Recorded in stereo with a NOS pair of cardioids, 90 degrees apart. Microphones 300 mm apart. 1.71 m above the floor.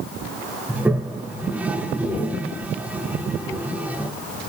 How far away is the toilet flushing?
About 2 m.